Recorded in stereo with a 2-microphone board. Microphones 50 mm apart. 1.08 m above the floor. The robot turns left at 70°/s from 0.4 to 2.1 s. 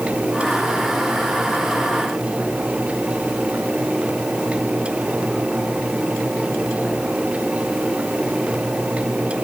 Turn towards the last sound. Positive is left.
No sound to turn to.